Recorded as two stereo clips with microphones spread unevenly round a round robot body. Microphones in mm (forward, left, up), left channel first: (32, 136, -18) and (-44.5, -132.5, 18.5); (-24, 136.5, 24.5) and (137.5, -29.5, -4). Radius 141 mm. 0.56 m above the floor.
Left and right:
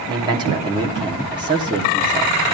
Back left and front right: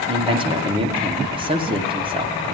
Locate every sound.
0.1 s a man speaking: 30° right, 1.1 m